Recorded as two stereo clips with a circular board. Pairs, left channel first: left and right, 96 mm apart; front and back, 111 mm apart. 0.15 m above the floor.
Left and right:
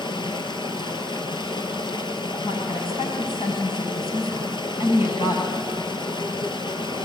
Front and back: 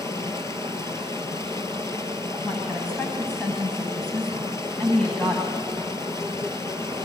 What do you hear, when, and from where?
0.0 s running water: 60° left, 2 m
2.4 s a woman speaking: 80° left, 9.5 m